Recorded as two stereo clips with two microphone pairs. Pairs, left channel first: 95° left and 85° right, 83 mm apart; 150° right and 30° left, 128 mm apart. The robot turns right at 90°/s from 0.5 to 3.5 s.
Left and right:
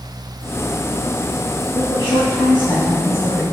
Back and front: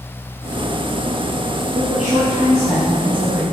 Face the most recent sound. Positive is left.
turn(degrees=-145)